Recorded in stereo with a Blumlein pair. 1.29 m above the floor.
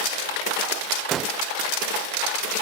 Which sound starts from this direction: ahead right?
A gunshot, at 1.1 s.